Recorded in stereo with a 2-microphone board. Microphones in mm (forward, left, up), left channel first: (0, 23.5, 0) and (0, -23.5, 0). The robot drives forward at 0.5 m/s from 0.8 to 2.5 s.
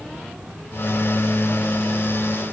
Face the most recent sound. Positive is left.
No sound to turn to.